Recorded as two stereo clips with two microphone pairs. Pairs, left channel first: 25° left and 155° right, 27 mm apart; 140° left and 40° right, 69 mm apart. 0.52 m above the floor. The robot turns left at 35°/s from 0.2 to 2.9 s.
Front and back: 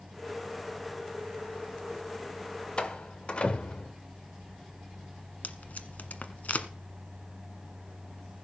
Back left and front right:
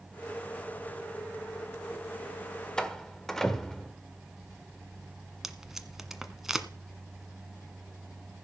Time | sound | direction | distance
2.8 | a door slam | 65° left | 1.5 m
5.4 | tape being pulled | 45° left | 1.2 m